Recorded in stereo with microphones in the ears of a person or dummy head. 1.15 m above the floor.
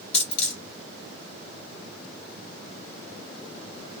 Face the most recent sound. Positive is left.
turn(degrees=35)  # may be behind; listen again after turning